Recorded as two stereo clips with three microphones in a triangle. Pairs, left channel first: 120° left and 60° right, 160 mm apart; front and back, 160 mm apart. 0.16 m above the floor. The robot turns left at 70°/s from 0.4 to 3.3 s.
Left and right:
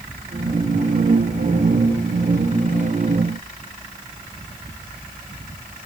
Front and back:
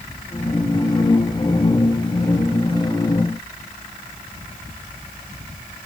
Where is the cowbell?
I don't hear a cowbell.